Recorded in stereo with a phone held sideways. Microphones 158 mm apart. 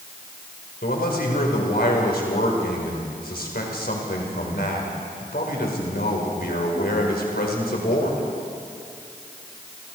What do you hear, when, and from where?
0.8 s a man speaking: 80° left, 4.5 m